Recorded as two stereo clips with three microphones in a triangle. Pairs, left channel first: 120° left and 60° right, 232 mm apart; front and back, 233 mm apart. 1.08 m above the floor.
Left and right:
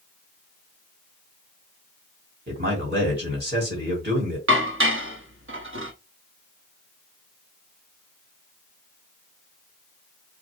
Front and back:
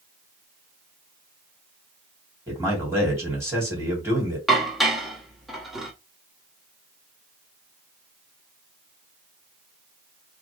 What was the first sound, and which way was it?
A man speaking, 100° right.